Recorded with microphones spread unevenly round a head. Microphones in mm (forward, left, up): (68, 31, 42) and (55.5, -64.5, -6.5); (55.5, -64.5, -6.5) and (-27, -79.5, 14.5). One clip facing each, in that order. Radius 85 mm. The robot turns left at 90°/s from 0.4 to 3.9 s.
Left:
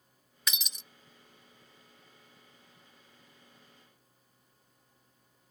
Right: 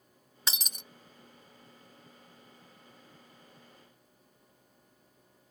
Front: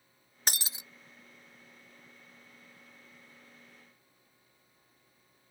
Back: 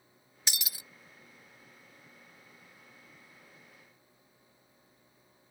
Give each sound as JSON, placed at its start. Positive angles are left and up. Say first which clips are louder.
{"t": 0.5, "sound": "breaking glass", "louder": "even, front 3 dB", "azimuth_deg": -35}